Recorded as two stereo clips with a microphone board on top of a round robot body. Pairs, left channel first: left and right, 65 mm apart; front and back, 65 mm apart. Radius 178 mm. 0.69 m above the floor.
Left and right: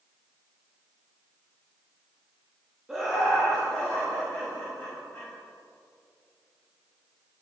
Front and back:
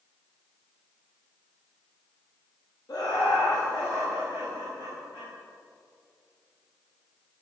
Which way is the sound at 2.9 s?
10° right.